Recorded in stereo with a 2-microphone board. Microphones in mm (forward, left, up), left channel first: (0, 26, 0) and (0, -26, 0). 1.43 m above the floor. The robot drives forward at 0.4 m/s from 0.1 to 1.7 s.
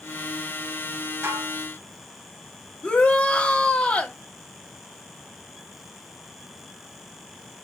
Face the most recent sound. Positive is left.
turn(degrees=25)  # may be behind; listen again after turning